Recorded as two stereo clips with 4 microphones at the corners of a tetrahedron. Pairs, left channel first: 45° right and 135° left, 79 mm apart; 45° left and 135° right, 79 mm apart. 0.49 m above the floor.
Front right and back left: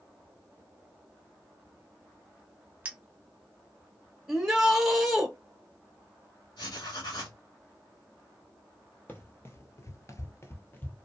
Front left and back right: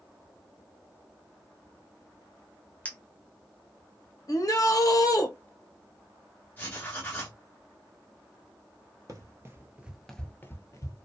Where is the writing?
20° right, 1.2 m.